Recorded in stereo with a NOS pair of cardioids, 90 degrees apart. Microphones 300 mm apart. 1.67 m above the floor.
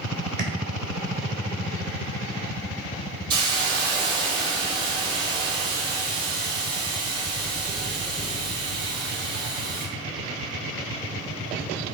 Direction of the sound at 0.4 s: 45° right.